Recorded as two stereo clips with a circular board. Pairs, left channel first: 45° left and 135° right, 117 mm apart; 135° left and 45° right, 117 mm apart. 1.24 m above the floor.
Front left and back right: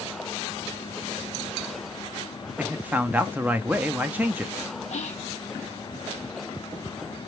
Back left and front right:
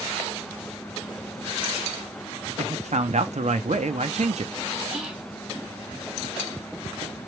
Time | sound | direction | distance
2.6 | a man speaking | 60° right | 0.6 m
4.9 | whispering | 35° left | 0.6 m